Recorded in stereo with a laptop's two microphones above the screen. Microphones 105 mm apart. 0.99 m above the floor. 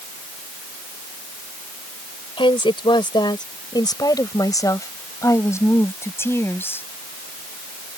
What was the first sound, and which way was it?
A woman speaking, 55° left (ahead or behind).